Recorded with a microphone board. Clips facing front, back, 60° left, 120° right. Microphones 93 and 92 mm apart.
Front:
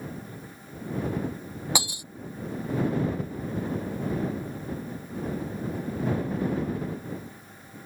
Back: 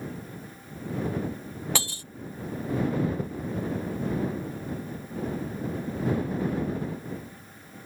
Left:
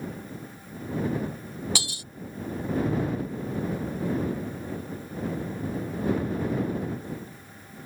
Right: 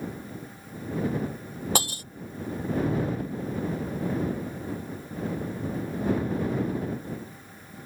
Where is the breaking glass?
75° right.